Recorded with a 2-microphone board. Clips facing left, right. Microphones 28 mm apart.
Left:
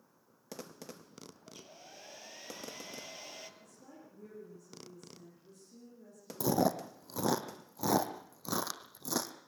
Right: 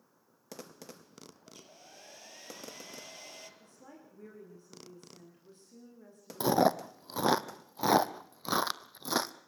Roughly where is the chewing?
Right.